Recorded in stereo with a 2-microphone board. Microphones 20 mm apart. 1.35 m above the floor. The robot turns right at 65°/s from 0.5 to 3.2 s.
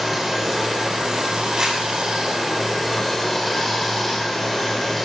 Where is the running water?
165° right, 1.3 m; by 5.0 s 10° left, 1.3 m.